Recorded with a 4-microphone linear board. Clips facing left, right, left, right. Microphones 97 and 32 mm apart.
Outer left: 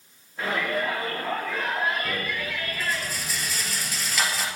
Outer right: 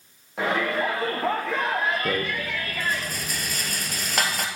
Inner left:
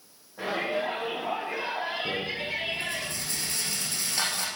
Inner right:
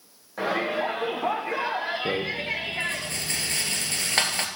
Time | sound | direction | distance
0.4 | a shout | 75° right (ahead or behind) | 7 m
2.0 | a rattle | 50° right (ahead or behind) | 2.5 m